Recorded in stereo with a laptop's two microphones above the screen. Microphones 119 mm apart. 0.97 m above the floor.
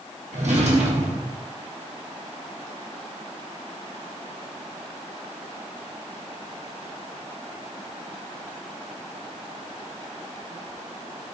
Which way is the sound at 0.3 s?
70° right (ahead or behind).